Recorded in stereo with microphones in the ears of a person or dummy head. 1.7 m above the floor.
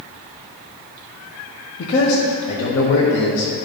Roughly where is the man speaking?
Left.